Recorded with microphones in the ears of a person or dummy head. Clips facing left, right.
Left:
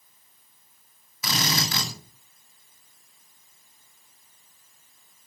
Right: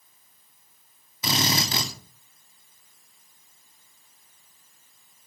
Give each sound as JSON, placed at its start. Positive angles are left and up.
{"t": 1.2, "sound": "a drill", "side_deg": -25, "distance_m": 2.5}